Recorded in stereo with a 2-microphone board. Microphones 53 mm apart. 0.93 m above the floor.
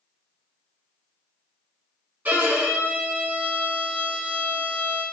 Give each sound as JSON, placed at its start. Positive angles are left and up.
{"t": 2.2, "sound": "a violin", "side_deg": -30, "distance_m": 0.8}